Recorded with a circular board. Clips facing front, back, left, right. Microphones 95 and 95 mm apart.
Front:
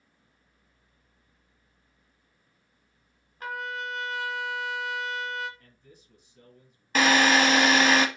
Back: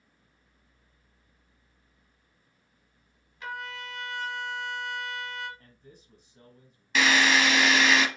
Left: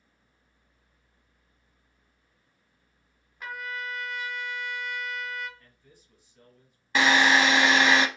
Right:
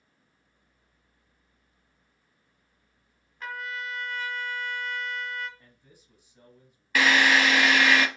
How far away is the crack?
No crack in this recording.